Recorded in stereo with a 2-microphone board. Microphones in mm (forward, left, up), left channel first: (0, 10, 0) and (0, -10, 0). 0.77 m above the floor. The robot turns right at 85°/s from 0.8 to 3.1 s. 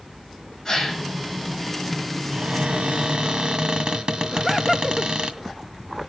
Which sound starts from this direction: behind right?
A cupboard door, at 2.3 s.